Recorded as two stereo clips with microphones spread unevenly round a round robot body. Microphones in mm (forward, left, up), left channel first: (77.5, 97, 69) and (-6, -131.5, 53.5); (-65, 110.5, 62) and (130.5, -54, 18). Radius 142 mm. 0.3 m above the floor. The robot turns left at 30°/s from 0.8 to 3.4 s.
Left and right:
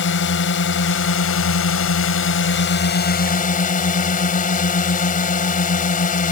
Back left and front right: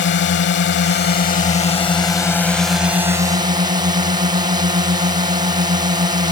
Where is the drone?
100° left; by 6.3 s 20° left.